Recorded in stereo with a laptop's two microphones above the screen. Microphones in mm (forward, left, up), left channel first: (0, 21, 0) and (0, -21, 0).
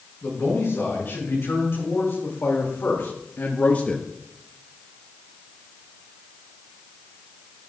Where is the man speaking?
75° left (ahead or behind), 5 m; by 4.1 s 10° left (ahead or behind), 0.7 m.